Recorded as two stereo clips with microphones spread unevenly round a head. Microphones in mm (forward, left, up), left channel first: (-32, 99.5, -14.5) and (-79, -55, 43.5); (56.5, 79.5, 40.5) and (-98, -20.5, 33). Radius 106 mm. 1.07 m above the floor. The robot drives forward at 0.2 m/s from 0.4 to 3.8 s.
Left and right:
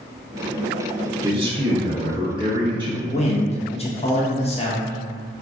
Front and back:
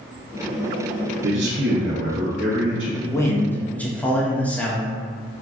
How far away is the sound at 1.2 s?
About 0.5 m.